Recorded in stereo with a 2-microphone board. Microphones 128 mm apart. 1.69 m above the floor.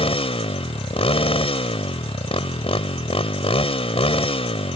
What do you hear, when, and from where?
0.0 s a motorcycle: 50° left (ahead or behind)